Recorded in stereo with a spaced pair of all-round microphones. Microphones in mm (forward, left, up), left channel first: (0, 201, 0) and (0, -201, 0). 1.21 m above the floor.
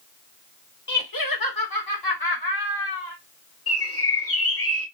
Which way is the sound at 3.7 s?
35° left (ahead or behind).